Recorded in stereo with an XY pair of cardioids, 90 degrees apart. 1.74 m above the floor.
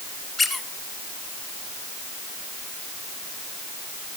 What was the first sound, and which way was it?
A squeak, 50° left.